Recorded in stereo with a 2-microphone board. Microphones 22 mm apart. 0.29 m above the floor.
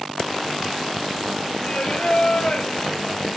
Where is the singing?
50° left (ahead or behind), 4 m.